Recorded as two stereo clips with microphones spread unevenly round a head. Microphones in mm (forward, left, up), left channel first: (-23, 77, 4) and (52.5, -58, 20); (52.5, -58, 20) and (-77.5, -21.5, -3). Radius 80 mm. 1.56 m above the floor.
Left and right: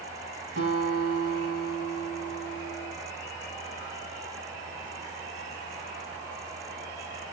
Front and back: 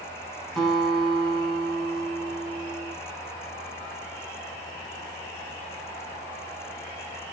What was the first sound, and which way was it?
A guitar, 100° right.